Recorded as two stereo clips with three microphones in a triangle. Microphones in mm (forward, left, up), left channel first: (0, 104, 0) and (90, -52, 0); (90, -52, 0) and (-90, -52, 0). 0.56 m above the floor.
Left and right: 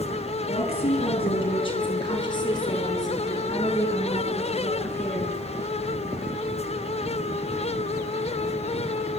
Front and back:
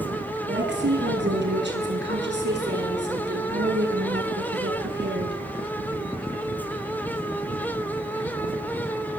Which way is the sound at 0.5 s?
175° left.